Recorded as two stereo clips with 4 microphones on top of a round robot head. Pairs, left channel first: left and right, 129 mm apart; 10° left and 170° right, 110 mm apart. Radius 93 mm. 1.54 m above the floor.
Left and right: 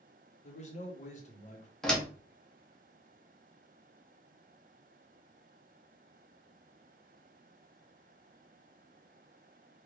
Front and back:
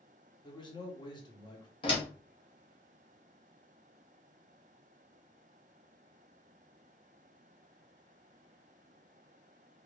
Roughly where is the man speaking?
Ahead left.